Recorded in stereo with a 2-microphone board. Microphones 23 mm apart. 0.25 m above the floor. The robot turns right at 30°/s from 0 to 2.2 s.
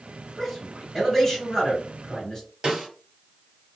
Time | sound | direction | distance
0.4 | a man speaking | 5° left (ahead or behind) | 1.7 m
2.6 | a snare drum | 45° right (ahead or behind) | 1.1 m